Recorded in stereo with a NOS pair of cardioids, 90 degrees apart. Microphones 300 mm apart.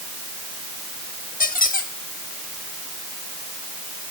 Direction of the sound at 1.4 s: 25° left.